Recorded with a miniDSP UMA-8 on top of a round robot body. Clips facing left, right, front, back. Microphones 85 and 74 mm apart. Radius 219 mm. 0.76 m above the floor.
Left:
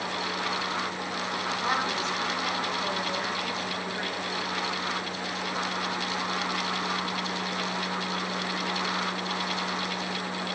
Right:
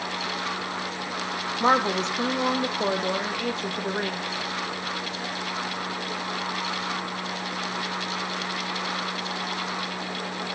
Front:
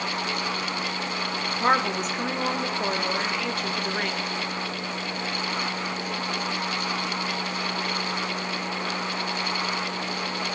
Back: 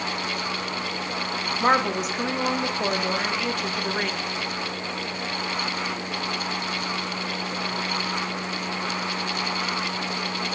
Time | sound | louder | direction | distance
1.6 | a woman speaking | right 9 dB, back 1 dB | 95° right | 1.0 m